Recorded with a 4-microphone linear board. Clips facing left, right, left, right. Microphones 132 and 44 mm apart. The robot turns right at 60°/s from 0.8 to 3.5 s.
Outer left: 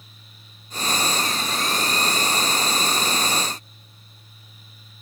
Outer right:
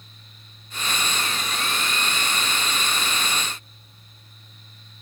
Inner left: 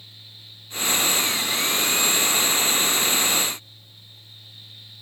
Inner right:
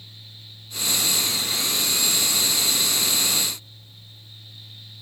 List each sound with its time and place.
Only background noise.